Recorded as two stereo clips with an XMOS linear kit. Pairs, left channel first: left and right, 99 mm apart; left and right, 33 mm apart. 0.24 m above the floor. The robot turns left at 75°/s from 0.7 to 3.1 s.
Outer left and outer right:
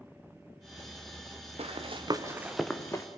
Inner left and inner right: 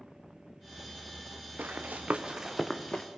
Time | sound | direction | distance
1.6 | running footsteps | 85° right | 3 m